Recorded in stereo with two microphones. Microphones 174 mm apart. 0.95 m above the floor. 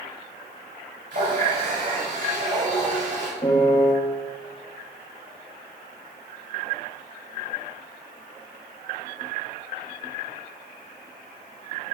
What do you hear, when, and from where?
1.1 s a running tap: 85° right, 3 m
3.4 s a piano: 35° left (ahead or behind), 1.9 m